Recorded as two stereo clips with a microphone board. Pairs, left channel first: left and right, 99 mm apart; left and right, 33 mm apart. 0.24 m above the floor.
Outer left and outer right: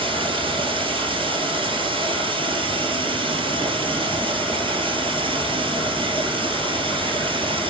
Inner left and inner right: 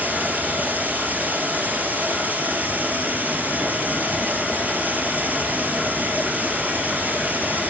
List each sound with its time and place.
0.0 s running water: 60° right (ahead or behind), 2.5 m